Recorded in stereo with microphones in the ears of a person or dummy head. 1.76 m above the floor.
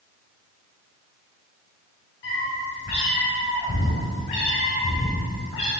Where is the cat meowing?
25° left (ahead or behind), 1.6 m.